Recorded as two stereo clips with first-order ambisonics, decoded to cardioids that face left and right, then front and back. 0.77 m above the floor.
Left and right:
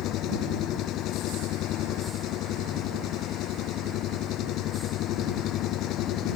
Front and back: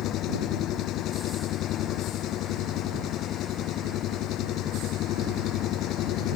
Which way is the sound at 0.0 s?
45° left.